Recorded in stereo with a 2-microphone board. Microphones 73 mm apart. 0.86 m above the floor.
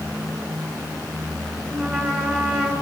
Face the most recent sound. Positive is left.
turn(degrees=-20)  # may be behind; listen again after turning